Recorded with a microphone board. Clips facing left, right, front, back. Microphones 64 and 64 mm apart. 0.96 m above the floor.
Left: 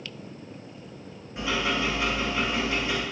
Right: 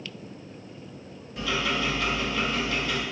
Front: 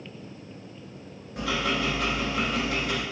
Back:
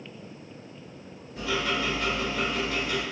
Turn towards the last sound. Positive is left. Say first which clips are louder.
# left 1 dB, front 1 dB
turn(degrees=25)